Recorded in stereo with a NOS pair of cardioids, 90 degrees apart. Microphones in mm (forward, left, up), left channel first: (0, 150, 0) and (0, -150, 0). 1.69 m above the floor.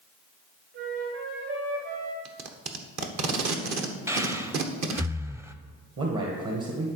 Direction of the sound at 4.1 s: 10° right.